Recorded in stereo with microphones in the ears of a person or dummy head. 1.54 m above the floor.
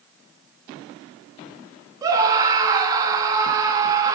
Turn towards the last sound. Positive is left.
turn(degrees=-25)  # may be behind; listen again after turning